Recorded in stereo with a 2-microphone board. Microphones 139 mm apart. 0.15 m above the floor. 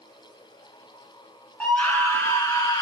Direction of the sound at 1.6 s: 10° left (ahead or behind).